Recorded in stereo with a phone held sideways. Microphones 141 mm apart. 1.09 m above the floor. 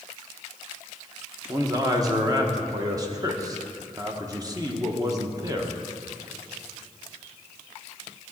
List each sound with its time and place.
1.5 s a man speaking: 25° right (ahead or behind), 1.1 m